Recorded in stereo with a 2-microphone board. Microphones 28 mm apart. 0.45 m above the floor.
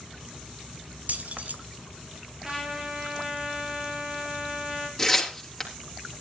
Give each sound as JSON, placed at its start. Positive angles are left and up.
{"t": 1.1, "sound": "keys jangling", "side_deg": -65, "distance_m": 1.5}
{"t": 2.4, "sound": "a trumpet", "side_deg": -15, "distance_m": 5.5}
{"t": 5.0, "sound": "tearing paper", "side_deg": 10, "distance_m": 3.5}